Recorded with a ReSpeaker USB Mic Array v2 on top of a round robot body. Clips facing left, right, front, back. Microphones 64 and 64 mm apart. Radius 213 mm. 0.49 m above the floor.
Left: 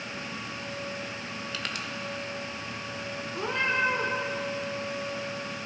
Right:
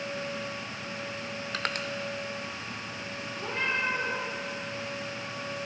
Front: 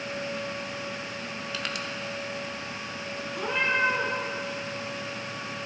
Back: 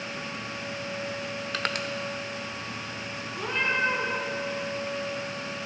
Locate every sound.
1.5 s crushing: 135° right, 0.8 m
3.3 s a cat meowing: 85° left, 3 m